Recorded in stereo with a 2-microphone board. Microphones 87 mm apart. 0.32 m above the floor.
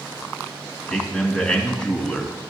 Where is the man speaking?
15° left (ahead or behind), 2.0 m.